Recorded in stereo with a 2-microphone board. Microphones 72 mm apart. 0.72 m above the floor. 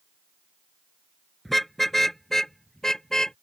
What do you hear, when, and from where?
1.4 s a car horn: centre (ahead or behind); by 3.4 s 5° left (ahead or behind)